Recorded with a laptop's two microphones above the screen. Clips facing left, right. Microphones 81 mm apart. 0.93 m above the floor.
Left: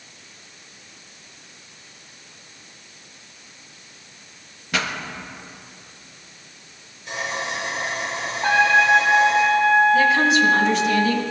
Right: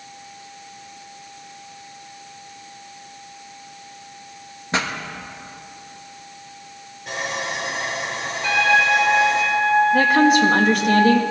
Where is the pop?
30° right (ahead or behind), 0.9 m.